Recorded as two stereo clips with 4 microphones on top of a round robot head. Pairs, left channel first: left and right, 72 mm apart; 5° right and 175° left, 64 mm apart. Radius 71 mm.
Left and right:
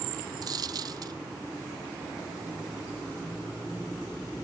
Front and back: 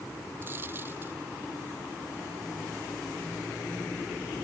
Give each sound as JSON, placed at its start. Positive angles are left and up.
{"t": 0.4, "sound": "a dropped coin", "azimuth_deg": -120}